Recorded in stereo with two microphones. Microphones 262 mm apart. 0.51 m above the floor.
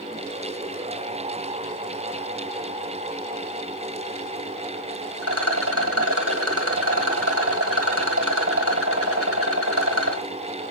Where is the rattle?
65° right (ahead or behind), 1.1 m.